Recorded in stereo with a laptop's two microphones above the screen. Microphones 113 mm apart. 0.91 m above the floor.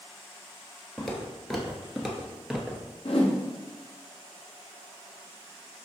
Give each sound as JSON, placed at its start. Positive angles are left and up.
{"t": 1.0, "sound": "footsteps", "side_deg": 0, "distance_m": 1.0}
{"t": 3.0, "sound": "a whoosh", "side_deg": 60, "distance_m": 0.6}